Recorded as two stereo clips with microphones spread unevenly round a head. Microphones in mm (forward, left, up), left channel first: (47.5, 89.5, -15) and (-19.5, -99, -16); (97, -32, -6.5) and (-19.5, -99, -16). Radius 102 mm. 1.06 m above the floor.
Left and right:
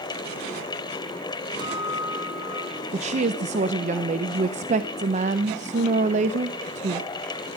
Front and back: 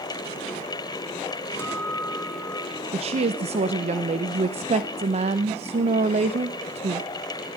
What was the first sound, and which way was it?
A guitar, 40° right.